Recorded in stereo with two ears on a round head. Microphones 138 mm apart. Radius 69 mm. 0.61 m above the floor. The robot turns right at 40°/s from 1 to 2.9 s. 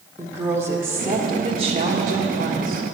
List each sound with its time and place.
0.2 s a woman speaking: 160° right, 1.2 m; by 2.8 s 85° right, 1.2 m